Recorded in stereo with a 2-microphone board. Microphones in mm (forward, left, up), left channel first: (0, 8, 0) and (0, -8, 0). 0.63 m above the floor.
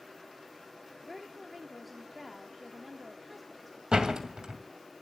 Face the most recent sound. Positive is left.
turn(degrees=-65)  # may be behind; listen again after turning